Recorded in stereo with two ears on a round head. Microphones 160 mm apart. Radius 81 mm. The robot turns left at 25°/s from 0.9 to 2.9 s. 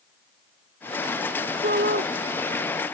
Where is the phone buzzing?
No phone buzzing in this recording.